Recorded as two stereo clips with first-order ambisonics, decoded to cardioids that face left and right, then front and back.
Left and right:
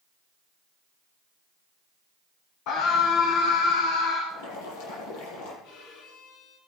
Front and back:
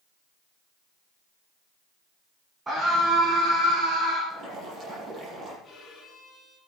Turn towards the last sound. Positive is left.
turn(degrees=75)